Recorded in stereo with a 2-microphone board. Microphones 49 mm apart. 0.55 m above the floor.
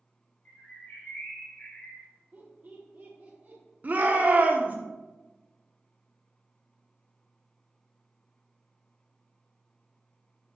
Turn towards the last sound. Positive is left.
turn(degrees=-35)  # may be behind; listen again after turning